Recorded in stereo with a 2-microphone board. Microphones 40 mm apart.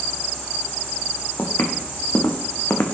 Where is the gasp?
No gasp in this recording.